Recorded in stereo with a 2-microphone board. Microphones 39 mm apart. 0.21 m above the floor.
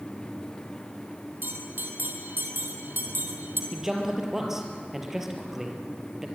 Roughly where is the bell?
Right.